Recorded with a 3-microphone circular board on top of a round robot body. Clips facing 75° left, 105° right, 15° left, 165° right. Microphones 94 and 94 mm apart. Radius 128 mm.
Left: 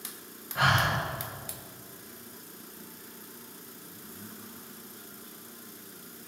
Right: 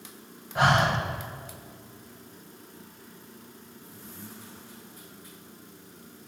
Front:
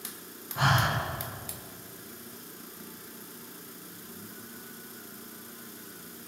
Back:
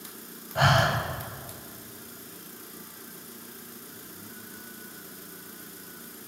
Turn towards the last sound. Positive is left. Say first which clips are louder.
# right 4 dB, back 4 dB
turn(degrees=-160)